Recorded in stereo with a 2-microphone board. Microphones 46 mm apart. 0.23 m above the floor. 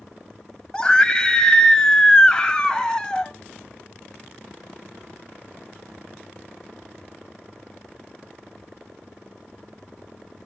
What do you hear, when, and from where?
0.7 s a scream: 20° left (ahead or behind), 1.1 m